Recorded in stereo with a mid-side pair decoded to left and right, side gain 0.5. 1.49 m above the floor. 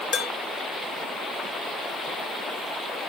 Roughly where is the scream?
No scream in this recording.